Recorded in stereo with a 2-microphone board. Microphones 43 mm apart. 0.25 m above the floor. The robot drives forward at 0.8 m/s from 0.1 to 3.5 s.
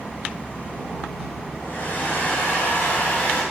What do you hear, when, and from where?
1.6 s a hair dryer: 50° left (ahead or behind), 2.5 m; by 3.4 s 30° left (ahead or behind), 3.5 m